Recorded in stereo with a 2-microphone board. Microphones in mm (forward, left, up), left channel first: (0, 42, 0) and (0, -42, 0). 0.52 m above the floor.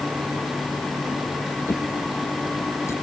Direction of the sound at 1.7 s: 35° left (ahead or behind).